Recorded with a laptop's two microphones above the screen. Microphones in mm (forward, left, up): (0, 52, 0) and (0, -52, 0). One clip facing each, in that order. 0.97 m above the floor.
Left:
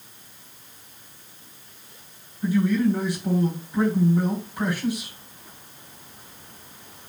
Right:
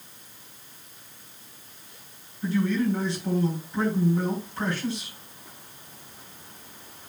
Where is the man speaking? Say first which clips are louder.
Left 4 dB; 15° left (ahead or behind), 4.5 m.